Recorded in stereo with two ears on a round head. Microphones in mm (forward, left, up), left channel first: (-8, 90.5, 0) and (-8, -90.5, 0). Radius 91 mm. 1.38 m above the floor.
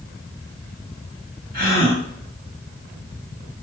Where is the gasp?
50° right (ahead or behind), 2 m.